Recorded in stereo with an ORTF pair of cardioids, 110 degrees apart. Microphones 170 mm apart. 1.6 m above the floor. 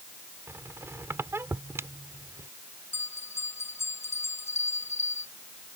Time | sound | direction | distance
0.5 | a squeak | 15° right | ?
2.9 | a bell | 15° left | ?